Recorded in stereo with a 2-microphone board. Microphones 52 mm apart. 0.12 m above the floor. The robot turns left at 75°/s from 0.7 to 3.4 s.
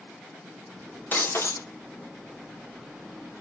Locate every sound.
1.1 s breaking glass: 140° left, 1.3 m; by 1.7 s 100° left, 1.3 m